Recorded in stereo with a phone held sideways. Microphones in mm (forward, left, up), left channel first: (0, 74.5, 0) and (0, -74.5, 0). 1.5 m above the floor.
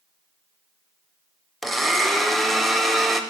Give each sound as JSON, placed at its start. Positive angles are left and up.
{"t": 1.6, "sound": "a blender", "side_deg": 0, "distance_m": 0.7}